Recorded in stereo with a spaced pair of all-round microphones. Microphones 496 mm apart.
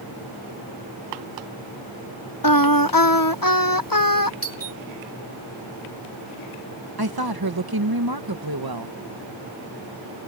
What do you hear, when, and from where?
2.4 s singing: 40° left (ahead or behind)
4.4 s a doorbell: 25° right (ahead or behind)
7.0 s a woman speaking: 45° right (ahead or behind)